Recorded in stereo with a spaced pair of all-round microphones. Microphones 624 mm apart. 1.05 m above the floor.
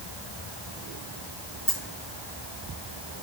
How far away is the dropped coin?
About 2.5 m.